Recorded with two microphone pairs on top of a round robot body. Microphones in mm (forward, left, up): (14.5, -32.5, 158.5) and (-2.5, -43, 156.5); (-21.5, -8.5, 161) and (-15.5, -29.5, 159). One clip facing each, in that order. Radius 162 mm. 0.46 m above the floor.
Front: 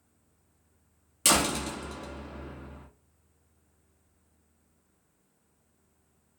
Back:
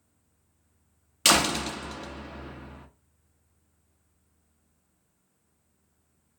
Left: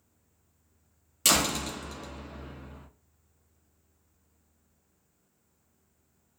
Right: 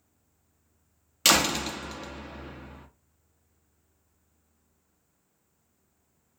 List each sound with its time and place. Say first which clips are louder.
1.2 s a door slam: back 3 dB, right 3 dB; 115° right, 0.8 m